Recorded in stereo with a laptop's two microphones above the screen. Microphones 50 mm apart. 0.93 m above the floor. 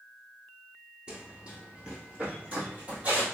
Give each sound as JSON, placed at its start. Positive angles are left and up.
{"t": 1.1, "sound": "running footsteps", "side_deg": -20, "distance_m": 0.9}